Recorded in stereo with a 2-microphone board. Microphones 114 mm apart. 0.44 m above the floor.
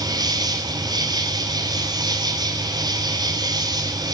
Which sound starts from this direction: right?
An insect, at 0.0 s.